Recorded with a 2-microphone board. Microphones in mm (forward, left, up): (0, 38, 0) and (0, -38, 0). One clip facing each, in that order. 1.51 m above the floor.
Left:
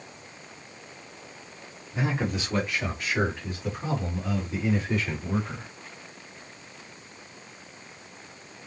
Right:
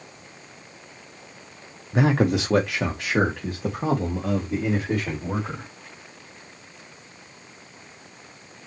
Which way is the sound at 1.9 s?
70° right (ahead or behind).